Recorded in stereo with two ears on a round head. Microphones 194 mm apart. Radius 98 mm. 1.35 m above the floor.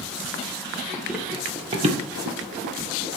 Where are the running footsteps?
5° left (ahead or behind), 1.9 m; by 3.1 s 60° right (ahead or behind), 3 m.